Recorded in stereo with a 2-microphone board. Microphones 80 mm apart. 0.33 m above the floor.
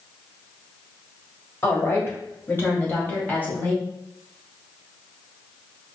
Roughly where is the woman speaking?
Left.